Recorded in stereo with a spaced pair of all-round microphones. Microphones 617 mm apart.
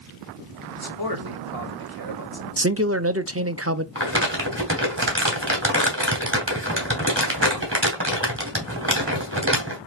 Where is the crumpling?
20° right (ahead or behind), 2.5 m.